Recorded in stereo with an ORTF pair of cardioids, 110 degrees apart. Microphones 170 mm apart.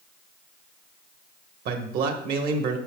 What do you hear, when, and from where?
1.6 s a man speaking: 65° right, 1.4 m